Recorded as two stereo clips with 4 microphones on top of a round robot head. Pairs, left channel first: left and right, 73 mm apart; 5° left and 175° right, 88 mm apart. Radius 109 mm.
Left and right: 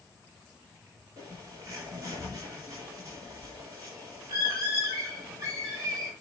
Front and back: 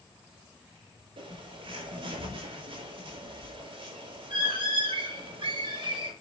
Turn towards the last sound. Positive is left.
turn(degrees=-145)